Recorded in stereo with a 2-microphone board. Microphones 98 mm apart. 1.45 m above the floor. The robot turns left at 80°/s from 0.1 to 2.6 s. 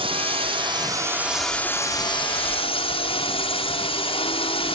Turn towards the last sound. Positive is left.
turn(degrees=85)